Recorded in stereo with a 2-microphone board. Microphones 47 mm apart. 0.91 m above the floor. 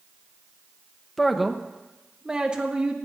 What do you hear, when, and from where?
1.2 s a man speaking: 5° left (ahead or behind), 0.9 m; by 3.0 s 25° right (ahead or behind), 1.8 m